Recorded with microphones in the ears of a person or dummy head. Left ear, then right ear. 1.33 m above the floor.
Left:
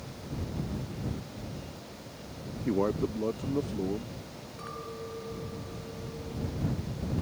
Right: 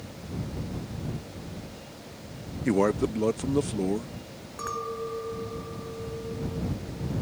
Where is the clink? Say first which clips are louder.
Right 9 dB; 45° right (ahead or behind).